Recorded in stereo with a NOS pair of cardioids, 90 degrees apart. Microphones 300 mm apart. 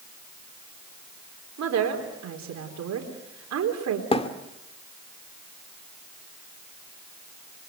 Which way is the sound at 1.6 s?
60° right.